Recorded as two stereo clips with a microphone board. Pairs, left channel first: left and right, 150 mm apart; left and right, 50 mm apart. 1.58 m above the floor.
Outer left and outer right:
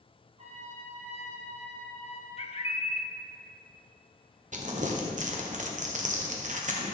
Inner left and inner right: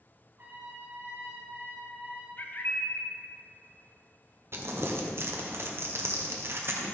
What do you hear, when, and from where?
0.4 s a trumpet: 45° right (ahead or behind), 3 m
2.4 s a bird: 40° left (ahead or behind), 0.7 m
4.5 s crumpling: 55° right (ahead or behind), 1.2 m